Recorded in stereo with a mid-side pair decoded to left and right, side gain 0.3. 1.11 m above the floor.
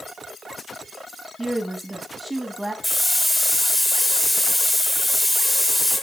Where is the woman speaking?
20° right, 1.8 m.